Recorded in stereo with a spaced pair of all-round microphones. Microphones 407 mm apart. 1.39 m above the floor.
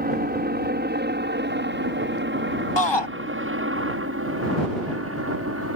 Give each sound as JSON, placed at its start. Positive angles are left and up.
{"t": 0.0, "sound": "a helicopter", "side_deg": -20}
{"t": 2.8, "sound": "a shout", "side_deg": 75}